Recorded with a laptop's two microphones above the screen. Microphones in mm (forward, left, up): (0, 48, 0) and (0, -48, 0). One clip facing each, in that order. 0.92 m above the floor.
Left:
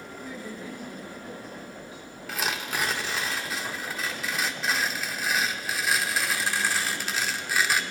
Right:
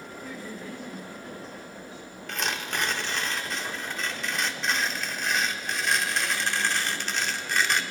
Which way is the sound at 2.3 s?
5° left (ahead or behind).